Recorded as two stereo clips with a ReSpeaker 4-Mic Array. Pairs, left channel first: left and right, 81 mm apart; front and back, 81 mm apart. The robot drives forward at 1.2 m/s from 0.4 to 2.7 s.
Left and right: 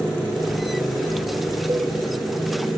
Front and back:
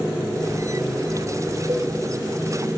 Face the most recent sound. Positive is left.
turn(degrees=-145)